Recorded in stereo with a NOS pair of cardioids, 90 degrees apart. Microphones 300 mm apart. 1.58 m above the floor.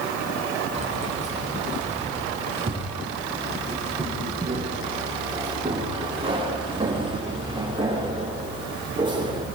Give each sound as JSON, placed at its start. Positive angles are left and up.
{"t": 0.7, "sound": "keys jangling", "azimuth_deg": -25, "distance_m": 8.0}